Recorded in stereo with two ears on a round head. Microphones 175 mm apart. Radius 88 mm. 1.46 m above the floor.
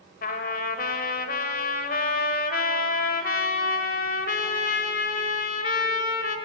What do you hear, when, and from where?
0.2 s a trumpet: 50° left (ahead or behind), 1.9 m